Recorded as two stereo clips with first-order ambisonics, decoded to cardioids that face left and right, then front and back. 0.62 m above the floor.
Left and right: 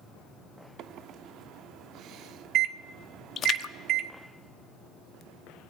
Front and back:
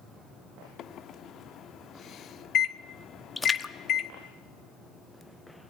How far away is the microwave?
About 0.7 m.